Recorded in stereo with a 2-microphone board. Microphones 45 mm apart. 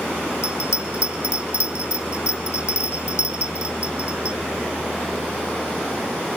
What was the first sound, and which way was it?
A bell, 75° left (ahead or behind).